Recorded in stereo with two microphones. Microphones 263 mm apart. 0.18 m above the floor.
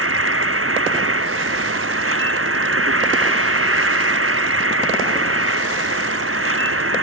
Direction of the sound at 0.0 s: 55° right (ahead or behind).